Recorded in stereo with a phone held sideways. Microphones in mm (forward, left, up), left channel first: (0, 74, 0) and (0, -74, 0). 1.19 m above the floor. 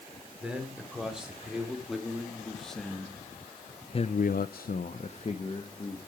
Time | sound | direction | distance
0.4 | a man speaking | 5° right (ahead or behind) | 3.5 m